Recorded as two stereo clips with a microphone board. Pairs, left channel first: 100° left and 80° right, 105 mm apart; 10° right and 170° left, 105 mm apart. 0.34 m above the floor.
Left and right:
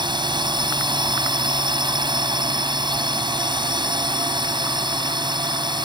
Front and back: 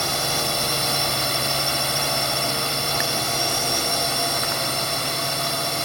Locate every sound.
0.0 s a drone: 100° right